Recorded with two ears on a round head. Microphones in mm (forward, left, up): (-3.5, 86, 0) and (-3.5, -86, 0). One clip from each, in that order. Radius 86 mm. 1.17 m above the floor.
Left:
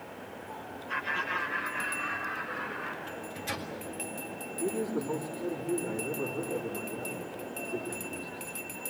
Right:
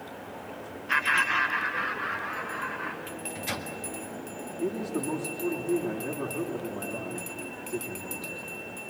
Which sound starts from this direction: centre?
A microwave, at 3.1 s.